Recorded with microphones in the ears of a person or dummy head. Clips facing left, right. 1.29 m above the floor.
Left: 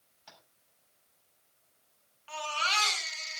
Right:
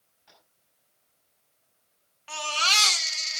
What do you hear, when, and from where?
0.3 s tapping: 70° left (ahead or behind), 5.5 m
2.3 s a baby crying: 65° right (ahead or behind), 1.8 m